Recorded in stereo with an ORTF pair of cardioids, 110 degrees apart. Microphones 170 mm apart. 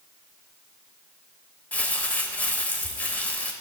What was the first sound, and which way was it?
Crumpling, 10° left.